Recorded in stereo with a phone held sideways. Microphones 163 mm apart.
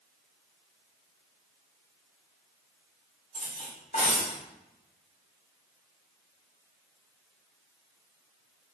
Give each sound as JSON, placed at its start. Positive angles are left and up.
{"t": 3.3, "sound": "cutlery clinking", "side_deg": 50, "distance_m": 2.0}